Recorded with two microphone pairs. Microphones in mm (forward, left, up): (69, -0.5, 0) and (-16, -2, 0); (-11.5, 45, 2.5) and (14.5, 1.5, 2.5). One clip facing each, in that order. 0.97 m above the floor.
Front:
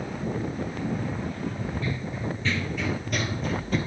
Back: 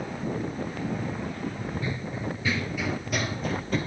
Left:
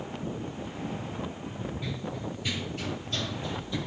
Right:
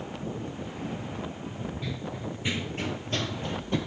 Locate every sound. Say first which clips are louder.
1.8 s running footsteps: front 1 dB, even; 155° right, 0.9 m; by 3.8 s 90° right, 1.8 m